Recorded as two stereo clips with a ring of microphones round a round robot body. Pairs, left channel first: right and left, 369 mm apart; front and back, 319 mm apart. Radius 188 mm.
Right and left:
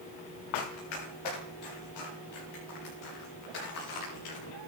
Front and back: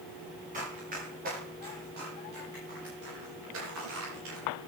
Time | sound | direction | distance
0.5 | running footsteps | 110° right | 8 m